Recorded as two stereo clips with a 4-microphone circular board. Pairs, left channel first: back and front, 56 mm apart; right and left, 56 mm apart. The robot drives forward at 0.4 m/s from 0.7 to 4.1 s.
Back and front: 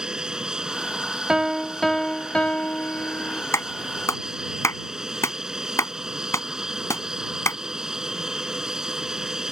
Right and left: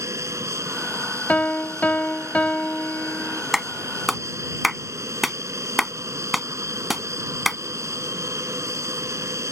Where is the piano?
65° right; by 3.4 s 150° right.